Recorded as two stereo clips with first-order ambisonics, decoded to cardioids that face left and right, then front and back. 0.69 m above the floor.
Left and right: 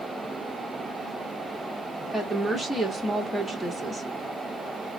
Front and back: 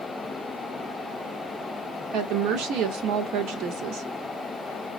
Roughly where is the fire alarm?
I don't hear a fire alarm.